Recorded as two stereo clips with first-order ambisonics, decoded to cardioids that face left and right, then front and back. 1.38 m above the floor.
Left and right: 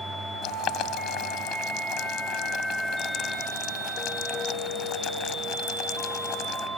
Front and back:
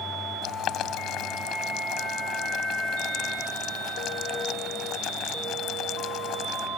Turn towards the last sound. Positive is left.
turn(degrees=45)